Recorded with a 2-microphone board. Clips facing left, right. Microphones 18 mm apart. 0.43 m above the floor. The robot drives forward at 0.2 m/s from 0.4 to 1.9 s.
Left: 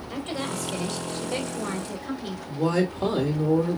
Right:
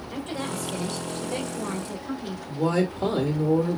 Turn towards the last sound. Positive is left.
turn(degrees=10)  # may be behind; listen again after turning